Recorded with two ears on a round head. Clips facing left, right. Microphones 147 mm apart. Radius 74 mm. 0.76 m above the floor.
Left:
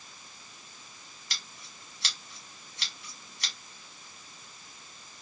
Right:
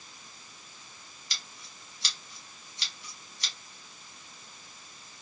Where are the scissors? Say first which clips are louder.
Left 1 dB; 45° left (ahead or behind), 1.3 m.